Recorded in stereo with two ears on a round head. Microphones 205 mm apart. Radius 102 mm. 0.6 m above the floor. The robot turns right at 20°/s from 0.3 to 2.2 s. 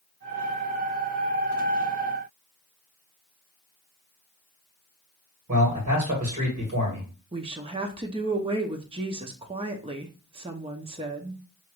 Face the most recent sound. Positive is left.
turn(degrees=-25)  # may be behind; listen again after turning